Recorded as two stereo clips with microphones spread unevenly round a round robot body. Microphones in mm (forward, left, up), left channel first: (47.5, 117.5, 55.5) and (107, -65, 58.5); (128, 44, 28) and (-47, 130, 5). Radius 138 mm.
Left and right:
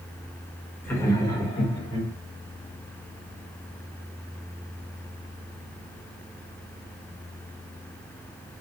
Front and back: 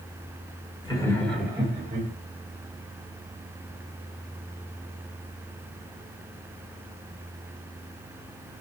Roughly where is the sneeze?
No sneeze in this recording.